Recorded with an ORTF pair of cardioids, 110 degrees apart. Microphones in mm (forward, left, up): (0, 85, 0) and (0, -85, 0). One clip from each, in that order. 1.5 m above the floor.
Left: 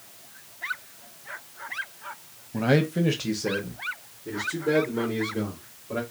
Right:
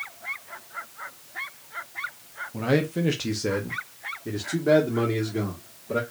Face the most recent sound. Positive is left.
turn(degrees=-50)